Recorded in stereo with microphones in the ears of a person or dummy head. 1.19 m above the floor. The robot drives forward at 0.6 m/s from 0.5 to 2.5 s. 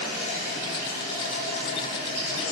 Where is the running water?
40° left (ahead or behind), 3 m; by 2.5 s 30° left (ahead or behind), 4 m.